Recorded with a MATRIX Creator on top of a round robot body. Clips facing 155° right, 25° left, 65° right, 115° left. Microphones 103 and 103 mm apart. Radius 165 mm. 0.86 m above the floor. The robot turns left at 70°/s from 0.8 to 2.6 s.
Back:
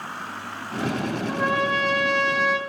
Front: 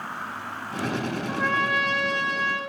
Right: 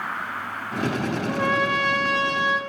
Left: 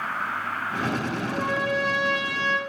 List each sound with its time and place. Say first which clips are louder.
1.3 s a trumpet: back 2 dB, right 3 dB; 65° right, 0.6 m; by 2.6 s 155° right, 0.6 m